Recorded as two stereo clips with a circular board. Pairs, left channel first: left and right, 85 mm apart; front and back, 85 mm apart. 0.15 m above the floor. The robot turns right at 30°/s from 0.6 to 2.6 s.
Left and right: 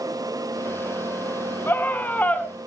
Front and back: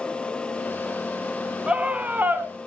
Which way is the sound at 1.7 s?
115° left.